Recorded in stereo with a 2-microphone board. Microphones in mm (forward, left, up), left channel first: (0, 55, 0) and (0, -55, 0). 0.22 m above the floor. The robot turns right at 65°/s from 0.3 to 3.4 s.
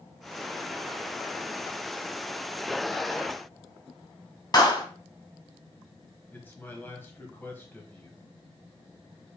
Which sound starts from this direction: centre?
A man speaking, at 6.3 s.